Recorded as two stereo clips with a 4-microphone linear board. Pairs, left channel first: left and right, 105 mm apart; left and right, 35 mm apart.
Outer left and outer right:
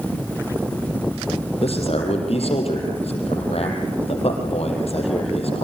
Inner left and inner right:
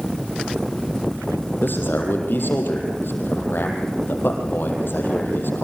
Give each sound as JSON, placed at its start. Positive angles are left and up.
{"t": 1.6, "sound": "a man speaking", "side_deg": 70, "distance_m": 5.0}